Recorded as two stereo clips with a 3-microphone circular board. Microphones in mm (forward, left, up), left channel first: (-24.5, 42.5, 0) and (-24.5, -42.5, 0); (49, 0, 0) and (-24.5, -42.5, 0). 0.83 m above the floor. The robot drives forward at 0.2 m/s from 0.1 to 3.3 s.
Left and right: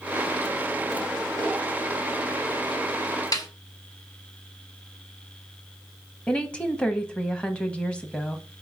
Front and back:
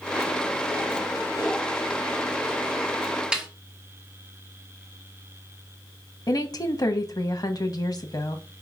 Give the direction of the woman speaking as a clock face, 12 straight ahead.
11 o'clock.